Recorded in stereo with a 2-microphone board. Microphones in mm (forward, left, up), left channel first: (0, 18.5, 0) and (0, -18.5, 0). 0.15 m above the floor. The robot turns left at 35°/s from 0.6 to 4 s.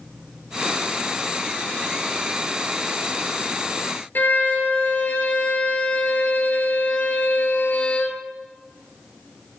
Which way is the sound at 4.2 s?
60° left (ahead or behind).